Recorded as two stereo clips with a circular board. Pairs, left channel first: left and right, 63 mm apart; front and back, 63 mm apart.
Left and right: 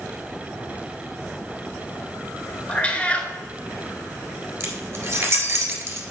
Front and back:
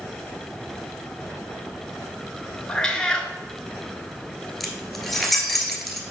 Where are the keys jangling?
85° right, 1.3 m.